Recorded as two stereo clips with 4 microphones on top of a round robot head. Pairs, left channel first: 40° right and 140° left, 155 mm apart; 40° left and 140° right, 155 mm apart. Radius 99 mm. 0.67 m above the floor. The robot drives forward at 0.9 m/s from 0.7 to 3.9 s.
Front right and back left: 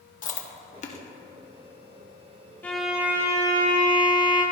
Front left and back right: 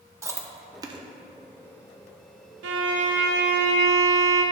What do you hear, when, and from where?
0.2 s chewing: 70° right, 1.1 m; by 1.0 s 85° right, 1.0 m
2.6 s a violin: 120° right, 0.7 m; by 4.4 s 160° right, 1.6 m